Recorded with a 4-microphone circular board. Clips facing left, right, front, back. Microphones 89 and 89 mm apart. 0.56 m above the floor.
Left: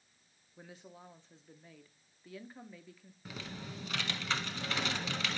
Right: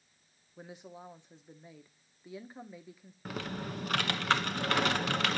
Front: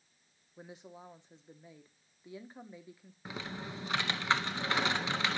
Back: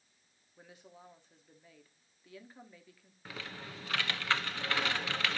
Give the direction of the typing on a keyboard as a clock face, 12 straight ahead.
2 o'clock.